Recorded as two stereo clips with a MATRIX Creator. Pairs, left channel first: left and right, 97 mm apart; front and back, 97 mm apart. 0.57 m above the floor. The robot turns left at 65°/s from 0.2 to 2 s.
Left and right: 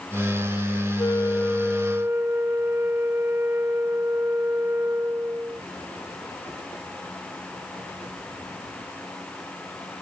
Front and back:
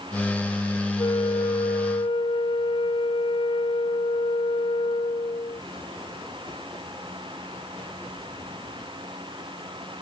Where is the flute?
40° left; by 5.6 s 25° right.